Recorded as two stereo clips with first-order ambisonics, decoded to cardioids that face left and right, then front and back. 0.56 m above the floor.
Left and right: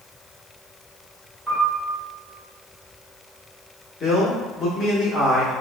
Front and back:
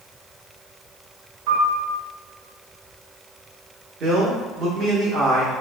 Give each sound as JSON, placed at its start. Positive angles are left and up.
{"t": 1.5, "sound": "a piano", "azimuth_deg": -175, "distance_m": 1.0}
{"t": 4.0, "sound": "a man speaking", "azimuth_deg": 145, "distance_m": 0.9}